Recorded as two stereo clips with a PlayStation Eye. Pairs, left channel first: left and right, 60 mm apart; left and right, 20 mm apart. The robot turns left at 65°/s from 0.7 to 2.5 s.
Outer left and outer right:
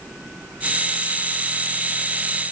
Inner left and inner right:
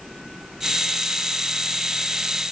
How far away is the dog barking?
I don't hear a dog barking.